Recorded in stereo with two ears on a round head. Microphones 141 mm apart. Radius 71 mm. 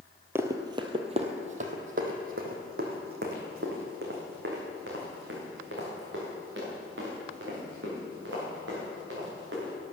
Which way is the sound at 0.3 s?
15° right (ahead or behind).